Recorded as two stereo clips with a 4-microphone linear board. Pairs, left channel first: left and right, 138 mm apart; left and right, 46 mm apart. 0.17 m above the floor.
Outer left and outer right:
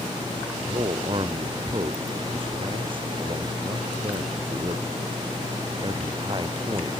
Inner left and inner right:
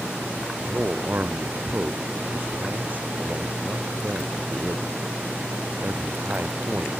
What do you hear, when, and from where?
0.6 s a man speaking: 40° right (ahead or behind); by 6.9 s 35° right (ahead or behind)